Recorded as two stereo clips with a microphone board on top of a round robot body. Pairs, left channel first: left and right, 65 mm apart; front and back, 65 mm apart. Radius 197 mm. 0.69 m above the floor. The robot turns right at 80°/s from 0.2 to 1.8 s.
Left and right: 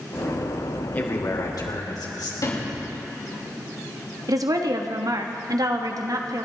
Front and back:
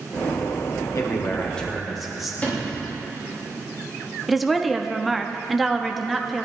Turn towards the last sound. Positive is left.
turn(degrees=-90)